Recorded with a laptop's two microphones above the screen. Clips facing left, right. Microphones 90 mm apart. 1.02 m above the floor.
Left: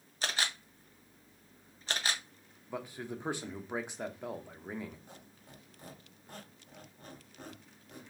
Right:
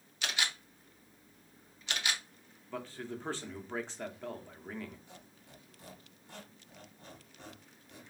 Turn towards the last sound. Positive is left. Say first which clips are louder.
# left 1 dB
turn(degrees=45)  # may be behind; listen again after turning